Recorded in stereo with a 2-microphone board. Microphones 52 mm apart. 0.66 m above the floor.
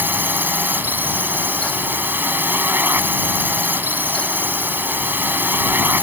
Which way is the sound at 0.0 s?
40° right (ahead or behind).